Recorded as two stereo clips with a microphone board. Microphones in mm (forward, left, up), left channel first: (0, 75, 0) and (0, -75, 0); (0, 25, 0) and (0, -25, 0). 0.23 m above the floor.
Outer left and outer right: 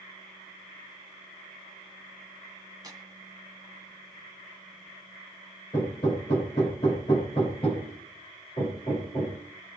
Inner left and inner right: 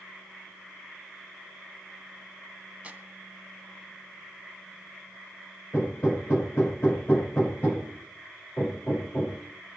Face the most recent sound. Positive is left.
turn(degrees=40)  # may be behind; listen again after turning